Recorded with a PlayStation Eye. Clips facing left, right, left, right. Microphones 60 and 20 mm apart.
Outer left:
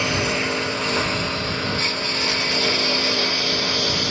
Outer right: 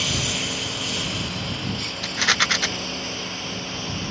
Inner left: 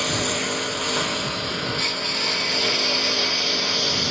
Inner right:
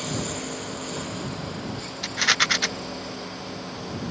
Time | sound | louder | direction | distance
0.0 | a lawn mower | outer left 6 dB, inner left 7 dB | 40° left (ahead or behind) | ?
2.0 | a rattle | outer right 2 dB, inner right 1 dB | 90° right | ?